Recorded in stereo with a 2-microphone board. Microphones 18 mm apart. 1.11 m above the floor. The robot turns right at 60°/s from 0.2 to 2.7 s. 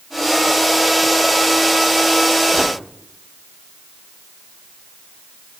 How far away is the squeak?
No squeak in this recording.